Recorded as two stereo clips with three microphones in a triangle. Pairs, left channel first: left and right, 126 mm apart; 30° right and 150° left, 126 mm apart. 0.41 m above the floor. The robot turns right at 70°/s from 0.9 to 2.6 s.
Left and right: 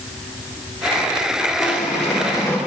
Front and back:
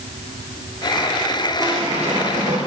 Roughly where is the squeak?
Left.